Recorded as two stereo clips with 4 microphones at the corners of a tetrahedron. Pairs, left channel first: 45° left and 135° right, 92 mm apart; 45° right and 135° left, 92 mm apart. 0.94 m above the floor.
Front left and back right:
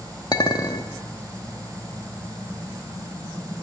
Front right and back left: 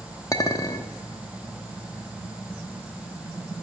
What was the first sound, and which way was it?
A clink, 5° left.